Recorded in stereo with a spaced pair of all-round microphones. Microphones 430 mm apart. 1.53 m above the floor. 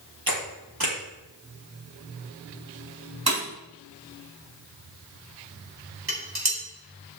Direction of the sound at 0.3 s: 55° right (ahead or behind).